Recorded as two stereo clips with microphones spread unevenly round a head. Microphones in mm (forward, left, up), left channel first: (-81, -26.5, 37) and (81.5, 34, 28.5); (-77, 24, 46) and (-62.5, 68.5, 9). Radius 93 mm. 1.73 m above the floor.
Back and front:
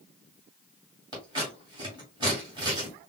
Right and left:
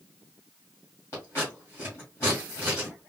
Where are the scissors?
45° right, 2.5 m.